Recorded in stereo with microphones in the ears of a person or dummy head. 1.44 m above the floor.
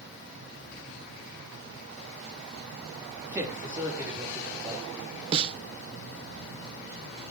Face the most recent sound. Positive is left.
turn(degrees=-30)  # may be behind; listen again after turning